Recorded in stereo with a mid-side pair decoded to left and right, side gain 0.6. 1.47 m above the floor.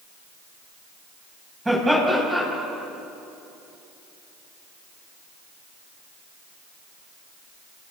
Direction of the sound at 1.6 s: 10° right.